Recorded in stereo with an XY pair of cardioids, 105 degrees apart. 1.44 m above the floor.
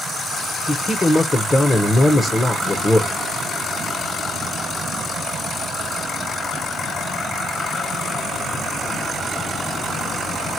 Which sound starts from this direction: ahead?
A man speaking, at 0.7 s.